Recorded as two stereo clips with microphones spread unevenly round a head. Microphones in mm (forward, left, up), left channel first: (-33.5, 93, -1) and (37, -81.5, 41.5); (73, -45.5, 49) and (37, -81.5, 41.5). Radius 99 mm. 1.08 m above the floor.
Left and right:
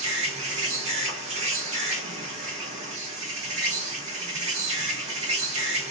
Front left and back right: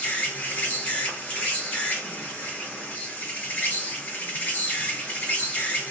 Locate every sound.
0.0 s an insect: 15° right, 1.4 m